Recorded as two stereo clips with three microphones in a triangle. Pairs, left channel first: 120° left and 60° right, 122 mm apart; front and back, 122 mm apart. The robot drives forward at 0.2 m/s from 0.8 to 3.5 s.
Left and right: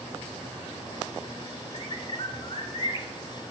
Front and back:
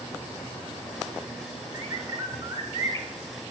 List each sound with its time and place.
1.7 s a bird: 130° left, 0.9 m; by 3.1 s 145° left, 1.1 m